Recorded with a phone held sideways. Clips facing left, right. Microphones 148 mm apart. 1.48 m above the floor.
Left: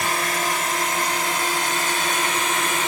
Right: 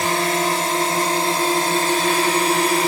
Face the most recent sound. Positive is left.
turn(degrees=-35)  # may be behind; listen again after turning